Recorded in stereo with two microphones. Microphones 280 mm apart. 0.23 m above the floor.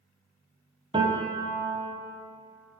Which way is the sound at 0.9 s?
20° right (ahead or behind).